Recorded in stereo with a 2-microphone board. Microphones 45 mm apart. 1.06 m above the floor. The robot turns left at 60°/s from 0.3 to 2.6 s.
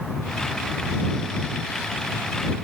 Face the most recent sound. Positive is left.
No sound to turn to.